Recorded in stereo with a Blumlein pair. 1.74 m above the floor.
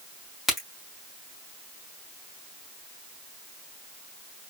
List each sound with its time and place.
0.5 s a crack: 15° left, 3 m